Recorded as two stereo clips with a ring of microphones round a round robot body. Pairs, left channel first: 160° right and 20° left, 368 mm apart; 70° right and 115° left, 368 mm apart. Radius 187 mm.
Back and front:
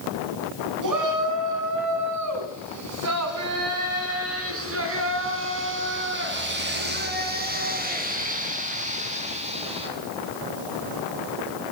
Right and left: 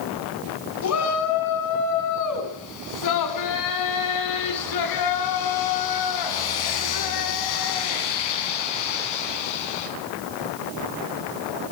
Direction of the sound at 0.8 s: 20° right.